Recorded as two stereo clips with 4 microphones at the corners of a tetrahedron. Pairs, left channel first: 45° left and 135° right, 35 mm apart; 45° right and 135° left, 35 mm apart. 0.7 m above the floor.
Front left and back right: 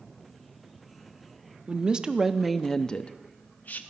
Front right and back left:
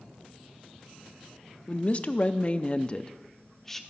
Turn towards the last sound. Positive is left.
turn(degrees=35)